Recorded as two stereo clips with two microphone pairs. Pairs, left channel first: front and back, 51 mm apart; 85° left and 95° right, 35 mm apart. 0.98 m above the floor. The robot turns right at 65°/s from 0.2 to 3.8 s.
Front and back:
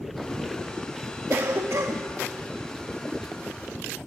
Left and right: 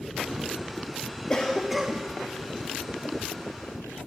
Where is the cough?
150° left, 1.3 m; by 2.1 s 160° right, 1.3 m.